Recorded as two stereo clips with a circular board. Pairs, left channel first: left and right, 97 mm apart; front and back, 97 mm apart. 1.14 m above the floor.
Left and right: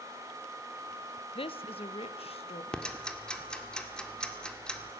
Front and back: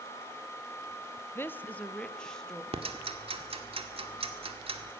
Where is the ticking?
170° left, 1.7 m.